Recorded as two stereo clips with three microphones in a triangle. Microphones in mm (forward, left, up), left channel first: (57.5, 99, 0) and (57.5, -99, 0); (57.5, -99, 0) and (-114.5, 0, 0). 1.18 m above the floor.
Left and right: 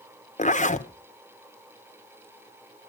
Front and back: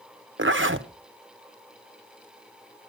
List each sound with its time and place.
0.4 s a zipper: 140° left, 0.9 m